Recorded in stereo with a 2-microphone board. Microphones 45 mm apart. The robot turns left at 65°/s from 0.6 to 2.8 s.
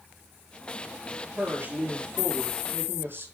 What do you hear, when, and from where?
1.4 s a woman speaking: 30° right, 4.5 m; by 3.3 s 120° right, 4.5 m